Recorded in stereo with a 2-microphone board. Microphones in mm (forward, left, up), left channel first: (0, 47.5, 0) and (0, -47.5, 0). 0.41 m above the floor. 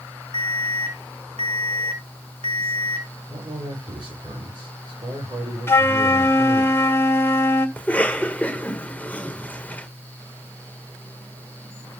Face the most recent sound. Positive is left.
turn(degrees=15)  # may be behind; listen again after turning